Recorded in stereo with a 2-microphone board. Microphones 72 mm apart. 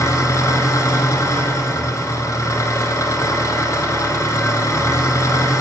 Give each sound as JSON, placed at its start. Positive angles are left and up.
{"t": 0.0, "sound": "an engine running", "side_deg": 40, "distance_m": 1.8}